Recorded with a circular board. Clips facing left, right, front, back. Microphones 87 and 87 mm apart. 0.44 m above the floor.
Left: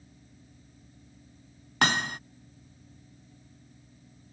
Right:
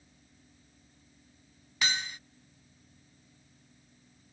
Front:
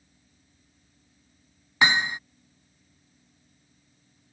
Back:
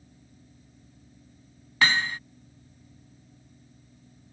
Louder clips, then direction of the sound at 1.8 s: Left 8 dB, front 1 dB; 70° left.